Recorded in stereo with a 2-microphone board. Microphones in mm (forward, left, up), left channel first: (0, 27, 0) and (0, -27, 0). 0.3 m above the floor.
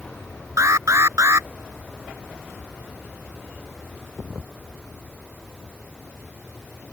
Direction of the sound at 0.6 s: 70° right (ahead or behind).